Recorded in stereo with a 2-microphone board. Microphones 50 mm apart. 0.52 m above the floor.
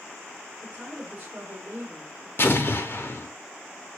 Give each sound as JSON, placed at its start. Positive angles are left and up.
{"t": 0.6, "sound": "a woman speaking", "side_deg": -25, "distance_m": 1.7}
{"t": 2.4, "sound": "an explosion", "side_deg": 50, "distance_m": 0.8}